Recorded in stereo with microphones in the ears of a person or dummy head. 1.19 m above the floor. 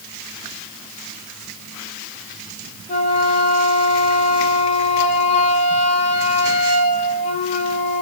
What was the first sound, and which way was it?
A flute, 40° left (ahead or behind).